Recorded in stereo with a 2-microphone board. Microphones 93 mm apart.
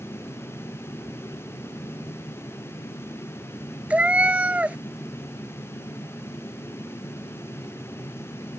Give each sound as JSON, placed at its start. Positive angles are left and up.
{"t": 3.9, "sound": "a cat meowing", "side_deg": -15}